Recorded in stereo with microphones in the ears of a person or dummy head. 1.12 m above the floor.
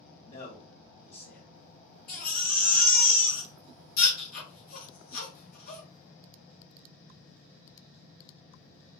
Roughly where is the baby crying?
Left.